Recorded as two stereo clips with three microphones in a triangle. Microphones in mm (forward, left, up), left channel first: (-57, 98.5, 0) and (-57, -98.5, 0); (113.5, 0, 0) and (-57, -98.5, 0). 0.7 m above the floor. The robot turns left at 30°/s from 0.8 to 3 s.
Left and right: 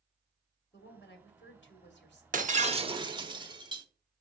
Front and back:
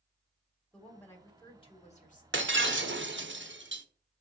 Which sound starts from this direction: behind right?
Breaking glass, at 2.3 s.